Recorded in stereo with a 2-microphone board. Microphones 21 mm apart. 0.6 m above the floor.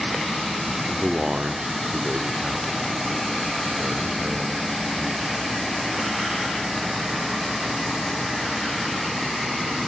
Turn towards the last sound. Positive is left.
turn(degrees=-60)  # may be behind; listen again after turning